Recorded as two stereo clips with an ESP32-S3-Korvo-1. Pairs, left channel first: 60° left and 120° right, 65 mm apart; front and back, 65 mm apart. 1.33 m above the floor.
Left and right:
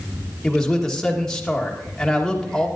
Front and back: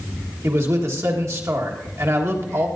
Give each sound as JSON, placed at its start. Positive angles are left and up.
{"t": 0.4, "sound": "a man speaking", "azimuth_deg": 140, "distance_m": 1.6}